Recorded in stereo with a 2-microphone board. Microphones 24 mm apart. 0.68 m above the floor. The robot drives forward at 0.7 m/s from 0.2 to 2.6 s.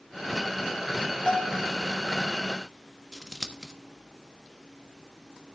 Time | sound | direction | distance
1.3 | a bell | 30° left (ahead or behind) | 2 m
3.1 | scissors | 25° right (ahead or behind) | 1.2 m